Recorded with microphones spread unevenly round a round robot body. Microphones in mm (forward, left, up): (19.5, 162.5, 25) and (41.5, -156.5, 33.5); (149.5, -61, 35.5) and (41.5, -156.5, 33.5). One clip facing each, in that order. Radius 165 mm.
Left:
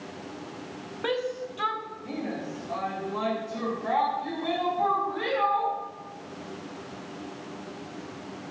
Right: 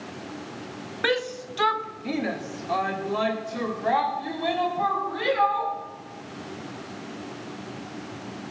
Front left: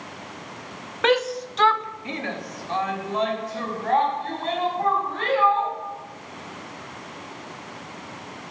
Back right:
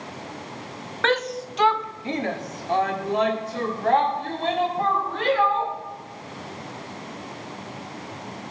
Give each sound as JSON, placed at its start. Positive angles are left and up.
{"t": 1.0, "sound": "a shout", "azimuth_deg": -35, "distance_m": 1.2}